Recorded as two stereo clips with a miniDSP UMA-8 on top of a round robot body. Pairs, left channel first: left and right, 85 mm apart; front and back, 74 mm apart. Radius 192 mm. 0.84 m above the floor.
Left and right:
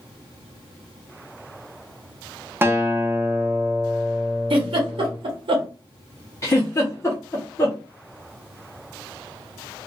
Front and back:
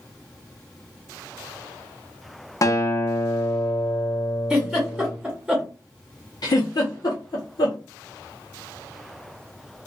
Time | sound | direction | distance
2.6 | a guitar | 30° right | 0.9 m
4.5 | a giggle | 100° right | 0.8 m
6.4 | a giggle | 35° left | 0.5 m